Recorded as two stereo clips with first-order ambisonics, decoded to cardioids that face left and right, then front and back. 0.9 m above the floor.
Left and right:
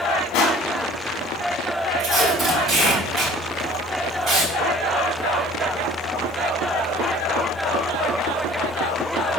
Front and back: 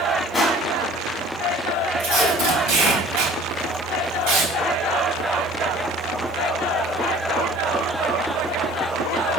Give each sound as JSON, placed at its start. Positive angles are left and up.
{"t": 0.3, "sound": "crushing", "azimuth_deg": 85, "distance_m": 1.3}
{"t": 2.0, "sound": "tape being pulled", "azimuth_deg": -170, "distance_m": 4.0}